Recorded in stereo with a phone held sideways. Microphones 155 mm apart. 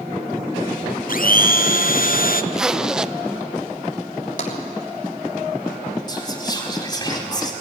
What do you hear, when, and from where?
1.1 s a blender: 65° left (ahead or behind), 0.8 m
2.5 s a zipper: 5° right (ahead or behind), 0.5 m
4.4 s tapping: 55° left (ahead or behind), 3 m
6.1 s whispering: 25° left (ahead or behind), 4.5 m